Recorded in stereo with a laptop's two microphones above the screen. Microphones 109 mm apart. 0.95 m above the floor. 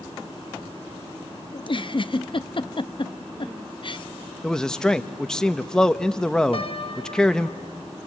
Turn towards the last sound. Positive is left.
turn(degrees=55)  # may be behind; listen again after turning